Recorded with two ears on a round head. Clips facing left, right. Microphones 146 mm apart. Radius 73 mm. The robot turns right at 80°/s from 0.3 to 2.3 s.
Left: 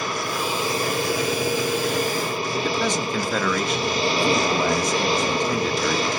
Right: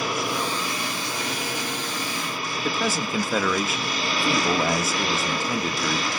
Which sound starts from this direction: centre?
A man speaking, at 2.6 s.